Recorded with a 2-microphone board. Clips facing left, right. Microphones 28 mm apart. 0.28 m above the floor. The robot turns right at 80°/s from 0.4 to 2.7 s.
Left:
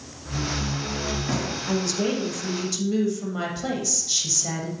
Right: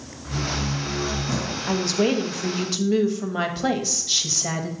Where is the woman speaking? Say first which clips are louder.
Right 4 dB; 140° right, 1.0 m; by 4.7 s 60° right, 1.0 m.